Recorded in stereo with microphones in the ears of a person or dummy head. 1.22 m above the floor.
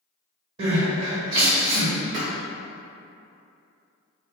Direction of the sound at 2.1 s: 50° right (ahead or behind).